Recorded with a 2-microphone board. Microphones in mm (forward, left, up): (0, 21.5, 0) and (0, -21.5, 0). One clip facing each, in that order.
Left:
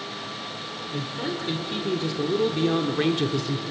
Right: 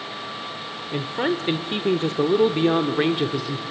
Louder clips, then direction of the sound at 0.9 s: Right 7 dB; 55° right (ahead or behind).